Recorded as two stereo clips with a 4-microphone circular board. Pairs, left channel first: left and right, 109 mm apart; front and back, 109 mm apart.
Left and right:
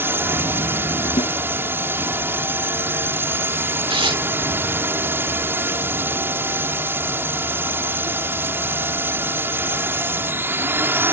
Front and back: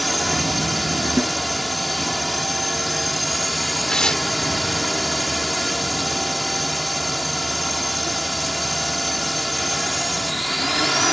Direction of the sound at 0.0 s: 90° right.